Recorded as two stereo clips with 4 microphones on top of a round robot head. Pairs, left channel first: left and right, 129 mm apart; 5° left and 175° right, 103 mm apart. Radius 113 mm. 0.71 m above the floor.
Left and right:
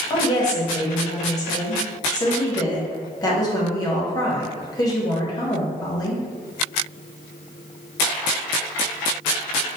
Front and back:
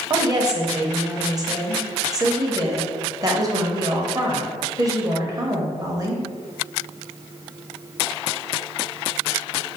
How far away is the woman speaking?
About 0.9 m.